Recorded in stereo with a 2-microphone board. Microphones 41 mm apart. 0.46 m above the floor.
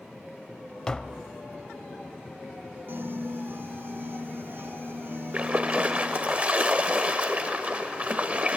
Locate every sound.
0.9 s tapping: 20° left (ahead or behind), 0.7 m
2.9 s a piano: 60° right (ahead or behind), 0.9 m
5.3 s a splash: 30° right (ahead or behind), 0.9 m